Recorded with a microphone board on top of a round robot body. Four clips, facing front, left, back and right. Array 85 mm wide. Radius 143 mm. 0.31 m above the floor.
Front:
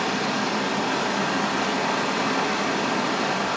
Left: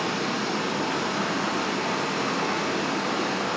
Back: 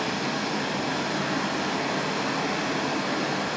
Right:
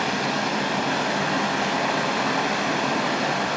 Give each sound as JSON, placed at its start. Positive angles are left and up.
{"t": 0.0, "sound": "running water", "azimuth_deg": -75, "distance_m": 2.5}